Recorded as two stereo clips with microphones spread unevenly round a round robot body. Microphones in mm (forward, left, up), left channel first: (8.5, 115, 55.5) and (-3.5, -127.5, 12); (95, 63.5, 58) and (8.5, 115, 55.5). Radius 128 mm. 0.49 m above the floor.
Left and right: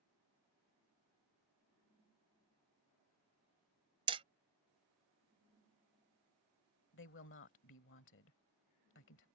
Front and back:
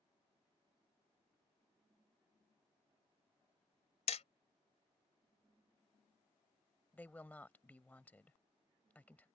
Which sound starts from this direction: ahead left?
A woman speaking, at 6.9 s.